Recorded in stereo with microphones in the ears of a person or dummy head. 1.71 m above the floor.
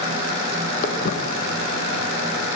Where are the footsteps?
50° left (ahead or behind), 4 m; by 2.5 s 60° left (ahead or behind), 4 m.